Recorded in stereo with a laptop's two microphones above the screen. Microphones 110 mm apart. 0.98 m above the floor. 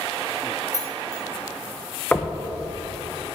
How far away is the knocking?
About 0.5 m.